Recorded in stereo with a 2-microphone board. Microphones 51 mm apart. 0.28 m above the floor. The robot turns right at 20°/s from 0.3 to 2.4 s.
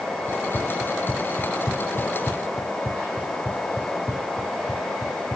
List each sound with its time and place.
0.3 s running footsteps: 40° left (ahead or behind); by 5.4 s 25° right (ahead or behind)